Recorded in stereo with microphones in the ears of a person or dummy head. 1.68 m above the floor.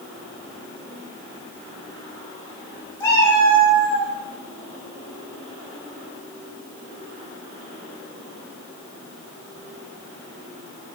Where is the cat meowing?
15° left (ahead or behind), 1.3 m; by 4.1 s 30° left (ahead or behind), 2.5 m.